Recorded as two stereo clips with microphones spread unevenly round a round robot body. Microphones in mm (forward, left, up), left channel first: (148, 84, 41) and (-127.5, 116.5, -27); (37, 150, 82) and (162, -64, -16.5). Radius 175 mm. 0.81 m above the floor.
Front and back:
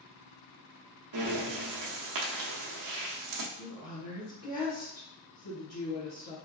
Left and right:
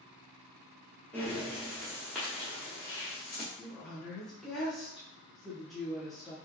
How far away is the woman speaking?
About 1.3 m.